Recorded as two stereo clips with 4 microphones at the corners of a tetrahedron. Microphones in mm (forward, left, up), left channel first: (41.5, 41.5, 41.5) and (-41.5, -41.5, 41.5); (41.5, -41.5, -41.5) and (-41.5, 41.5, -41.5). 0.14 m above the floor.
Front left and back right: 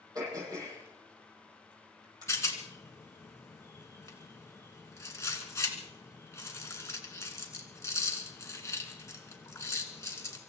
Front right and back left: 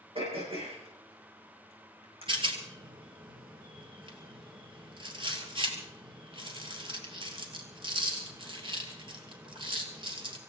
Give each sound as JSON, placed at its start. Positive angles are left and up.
{"t": 0.1, "sound": "throat clearing", "azimuth_deg": 165, "distance_m": 7.0}
{"t": 2.3, "sound": "a rattle", "azimuth_deg": 105, "distance_m": 2.5}